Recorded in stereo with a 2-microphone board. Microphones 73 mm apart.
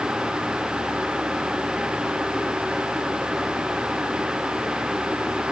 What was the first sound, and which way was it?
Only background noise.